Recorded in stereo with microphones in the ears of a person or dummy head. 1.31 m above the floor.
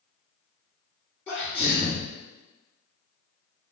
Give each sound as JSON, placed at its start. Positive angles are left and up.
{"t": 1.3, "sound": "a sneeze", "side_deg": 5, "distance_m": 1.0}